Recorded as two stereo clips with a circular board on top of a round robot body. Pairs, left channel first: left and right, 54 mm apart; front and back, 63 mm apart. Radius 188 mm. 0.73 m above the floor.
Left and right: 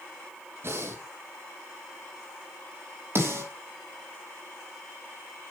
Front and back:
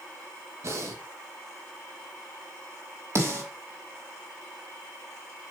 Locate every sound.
0.6 s breathing: 135° right, 1.9 m
3.1 s a snare drum: 135° right, 5 m